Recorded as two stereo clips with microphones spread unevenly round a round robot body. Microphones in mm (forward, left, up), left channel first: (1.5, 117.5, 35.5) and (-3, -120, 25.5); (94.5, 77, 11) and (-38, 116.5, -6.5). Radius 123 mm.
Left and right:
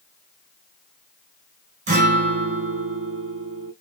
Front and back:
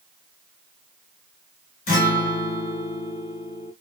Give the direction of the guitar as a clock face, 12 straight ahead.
1 o'clock.